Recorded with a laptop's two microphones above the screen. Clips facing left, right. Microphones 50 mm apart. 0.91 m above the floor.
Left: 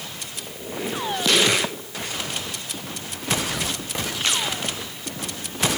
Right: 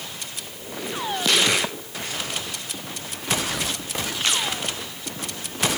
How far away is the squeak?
About 7 m.